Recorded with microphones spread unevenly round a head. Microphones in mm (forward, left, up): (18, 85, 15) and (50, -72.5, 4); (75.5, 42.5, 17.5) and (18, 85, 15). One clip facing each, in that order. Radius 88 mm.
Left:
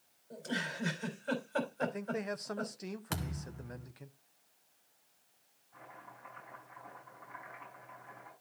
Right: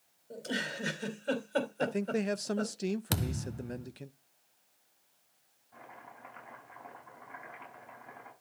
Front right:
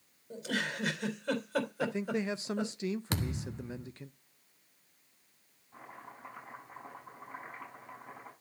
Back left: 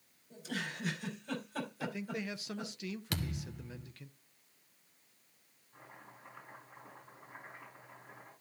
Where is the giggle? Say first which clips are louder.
Right 2 dB, front right 6 dB; 25° right, 3.5 m.